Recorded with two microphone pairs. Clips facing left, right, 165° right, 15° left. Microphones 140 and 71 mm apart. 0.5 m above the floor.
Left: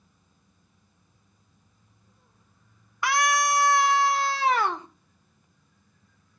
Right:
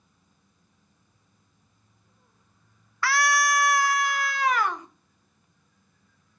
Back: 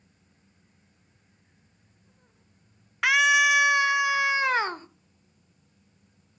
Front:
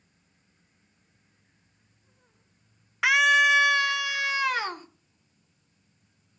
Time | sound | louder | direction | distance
3.0 | a scream | left 1 dB, even | 90° left | 0.7 m